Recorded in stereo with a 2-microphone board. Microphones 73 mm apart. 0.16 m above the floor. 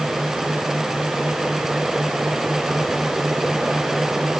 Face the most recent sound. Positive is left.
No sound to turn to.